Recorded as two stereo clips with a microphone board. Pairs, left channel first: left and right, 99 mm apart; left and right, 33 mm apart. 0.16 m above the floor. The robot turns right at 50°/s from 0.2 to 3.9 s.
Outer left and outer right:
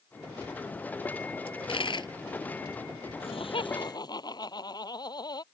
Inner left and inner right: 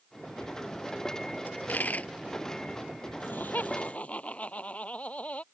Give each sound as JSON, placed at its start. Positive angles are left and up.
{"t": 1.5, "sound": "a dropped coin", "side_deg": 70}
{"t": 3.2, "sound": "laughter", "azimuth_deg": 100}